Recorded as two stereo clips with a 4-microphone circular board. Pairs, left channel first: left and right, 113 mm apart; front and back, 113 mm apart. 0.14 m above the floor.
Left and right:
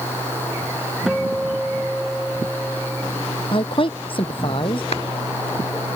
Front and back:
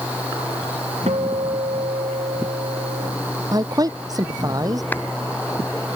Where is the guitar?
Straight behind.